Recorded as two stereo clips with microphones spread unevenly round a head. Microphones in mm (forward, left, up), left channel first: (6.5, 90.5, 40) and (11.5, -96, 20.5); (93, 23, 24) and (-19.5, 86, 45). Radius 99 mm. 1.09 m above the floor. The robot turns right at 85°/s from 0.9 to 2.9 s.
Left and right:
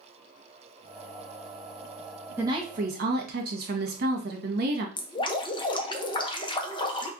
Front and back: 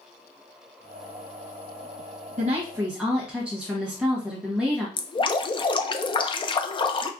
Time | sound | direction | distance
2.4 | a woman speaking | 165° right | 1.2 m
5.0 | dripping | 25° left | 0.6 m